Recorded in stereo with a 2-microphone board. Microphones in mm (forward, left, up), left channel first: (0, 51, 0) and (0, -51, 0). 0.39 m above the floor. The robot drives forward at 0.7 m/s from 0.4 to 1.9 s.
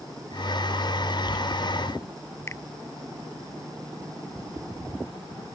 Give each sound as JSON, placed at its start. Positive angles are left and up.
{"t": 2.5, "sound": "a finger snap", "side_deg": 25}